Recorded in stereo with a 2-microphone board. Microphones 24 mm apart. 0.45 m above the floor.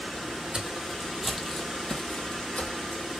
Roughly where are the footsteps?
Right.